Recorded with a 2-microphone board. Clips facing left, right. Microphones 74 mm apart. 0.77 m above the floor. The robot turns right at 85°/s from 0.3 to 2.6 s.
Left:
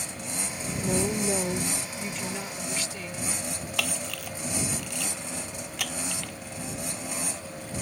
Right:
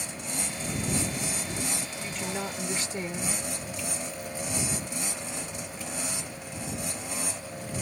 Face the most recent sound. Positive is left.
turn(degrees=80)